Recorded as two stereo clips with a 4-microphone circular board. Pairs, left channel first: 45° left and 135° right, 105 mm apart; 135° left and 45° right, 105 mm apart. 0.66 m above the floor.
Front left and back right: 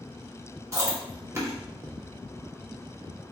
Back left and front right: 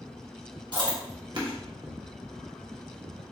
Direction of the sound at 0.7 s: 80° right.